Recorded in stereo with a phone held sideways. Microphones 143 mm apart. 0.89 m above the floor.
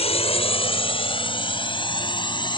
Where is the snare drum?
I don't hear a snare drum.